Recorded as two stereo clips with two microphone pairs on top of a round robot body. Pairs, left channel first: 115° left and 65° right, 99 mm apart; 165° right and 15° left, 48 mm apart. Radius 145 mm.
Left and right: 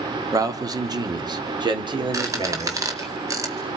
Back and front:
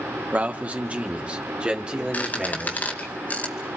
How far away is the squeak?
About 2.5 m.